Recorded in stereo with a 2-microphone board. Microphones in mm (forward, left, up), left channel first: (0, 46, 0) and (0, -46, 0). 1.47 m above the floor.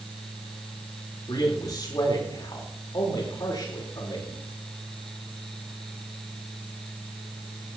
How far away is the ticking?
No ticking in this recording.